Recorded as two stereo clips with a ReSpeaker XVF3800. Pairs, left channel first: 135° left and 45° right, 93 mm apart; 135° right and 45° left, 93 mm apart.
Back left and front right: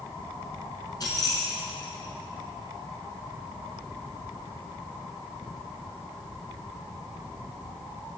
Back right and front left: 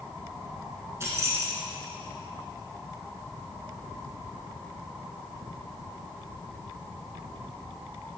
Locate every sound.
1.0 s keys jangling: 100° left, 1.7 m